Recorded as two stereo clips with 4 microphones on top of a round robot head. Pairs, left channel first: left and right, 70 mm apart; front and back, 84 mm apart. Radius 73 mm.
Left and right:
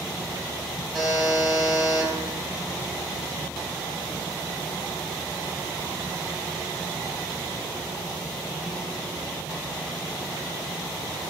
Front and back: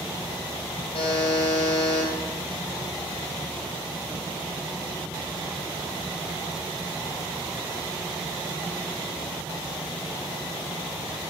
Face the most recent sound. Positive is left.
turn(degrees=-10)